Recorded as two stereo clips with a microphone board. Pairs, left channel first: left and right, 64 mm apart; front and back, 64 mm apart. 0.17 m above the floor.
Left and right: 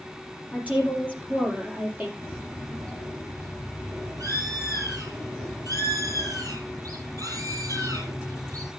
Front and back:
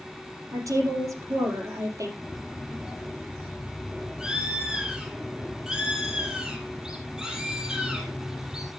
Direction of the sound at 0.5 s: 155° right.